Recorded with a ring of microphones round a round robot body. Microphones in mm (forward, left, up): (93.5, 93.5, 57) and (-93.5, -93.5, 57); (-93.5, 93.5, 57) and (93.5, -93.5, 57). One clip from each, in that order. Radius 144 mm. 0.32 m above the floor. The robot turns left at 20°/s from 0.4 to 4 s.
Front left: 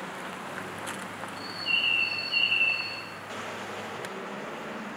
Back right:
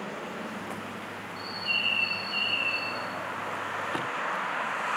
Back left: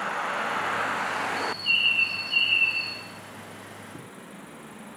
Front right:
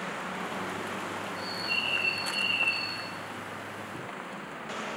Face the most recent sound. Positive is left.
turn(degrees=80)